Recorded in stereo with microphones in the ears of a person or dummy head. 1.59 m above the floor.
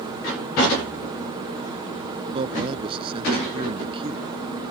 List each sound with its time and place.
2.3 s a man speaking: 30° right (ahead or behind)